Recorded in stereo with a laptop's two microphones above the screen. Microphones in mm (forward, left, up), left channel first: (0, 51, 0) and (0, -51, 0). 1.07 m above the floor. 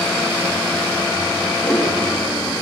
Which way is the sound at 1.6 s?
15° left (ahead or behind).